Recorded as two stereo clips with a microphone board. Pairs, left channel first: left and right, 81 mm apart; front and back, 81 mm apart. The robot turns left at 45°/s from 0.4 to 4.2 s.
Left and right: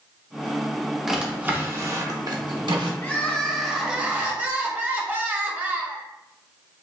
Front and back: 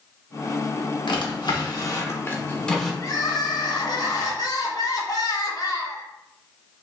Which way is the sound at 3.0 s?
30° left.